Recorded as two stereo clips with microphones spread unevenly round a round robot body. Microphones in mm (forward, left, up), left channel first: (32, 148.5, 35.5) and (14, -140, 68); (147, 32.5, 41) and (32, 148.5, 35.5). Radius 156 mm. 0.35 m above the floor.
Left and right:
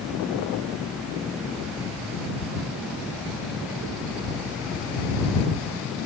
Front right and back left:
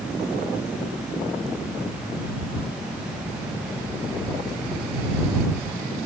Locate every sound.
Only background noise.